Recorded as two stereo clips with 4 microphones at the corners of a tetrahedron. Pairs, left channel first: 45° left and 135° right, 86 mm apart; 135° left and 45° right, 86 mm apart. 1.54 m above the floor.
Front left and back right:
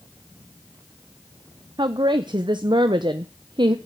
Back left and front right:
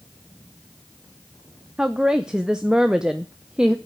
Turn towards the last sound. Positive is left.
turn(degrees=-125)